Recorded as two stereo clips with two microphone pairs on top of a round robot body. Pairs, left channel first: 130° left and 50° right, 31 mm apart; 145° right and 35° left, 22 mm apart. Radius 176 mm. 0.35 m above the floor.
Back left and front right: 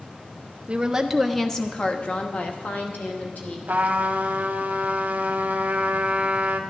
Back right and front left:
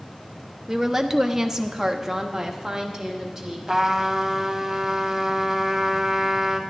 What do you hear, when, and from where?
0.7 s a woman speaking: 35° right, 0.9 m; by 3.6 s 120° left, 2 m
3.7 s a trumpet: 30° right, 0.9 m